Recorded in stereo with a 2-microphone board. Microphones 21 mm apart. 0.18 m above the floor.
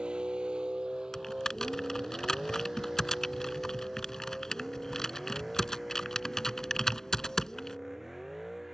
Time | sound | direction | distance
0.0 | a vehicle | 70° right (ahead or behind) | ?
1.1 | typing on a keyboard | 30° left (ahead or behind) | ?